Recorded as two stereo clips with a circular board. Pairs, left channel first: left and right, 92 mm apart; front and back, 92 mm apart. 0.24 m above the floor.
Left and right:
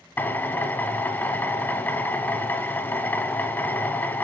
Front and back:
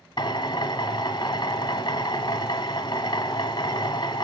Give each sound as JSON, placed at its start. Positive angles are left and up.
{"t": 0.2, "sound": "a drill", "azimuth_deg": 25, "distance_m": 0.7}